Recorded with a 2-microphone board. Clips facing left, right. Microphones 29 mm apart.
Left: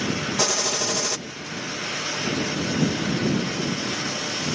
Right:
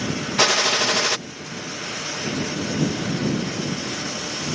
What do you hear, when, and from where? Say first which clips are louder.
0.4 s a gunshot: right 9 dB; 50° right (ahead or behind)